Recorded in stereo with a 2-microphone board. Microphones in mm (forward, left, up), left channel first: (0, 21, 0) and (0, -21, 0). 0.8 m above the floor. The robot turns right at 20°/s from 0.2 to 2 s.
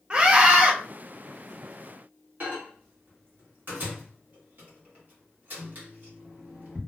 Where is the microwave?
45° right (ahead or behind), 1.1 m.